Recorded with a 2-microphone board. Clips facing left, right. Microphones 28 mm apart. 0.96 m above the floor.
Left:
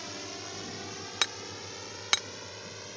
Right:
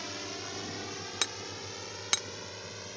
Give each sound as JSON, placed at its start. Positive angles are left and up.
{"t": 0.0, "sound": "a drone", "side_deg": -10}
{"t": 1.2, "sound": "hammering", "side_deg": 20}